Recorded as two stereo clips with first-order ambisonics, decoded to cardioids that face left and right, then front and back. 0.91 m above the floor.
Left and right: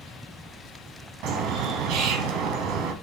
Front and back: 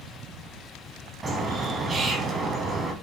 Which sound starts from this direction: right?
A bird, at 1.2 s.